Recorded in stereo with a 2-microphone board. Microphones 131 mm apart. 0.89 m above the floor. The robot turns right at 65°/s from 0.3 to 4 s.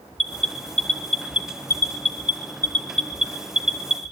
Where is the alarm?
50° left (ahead or behind), 3 m; by 4.1 s 55° right (ahead or behind), 3 m.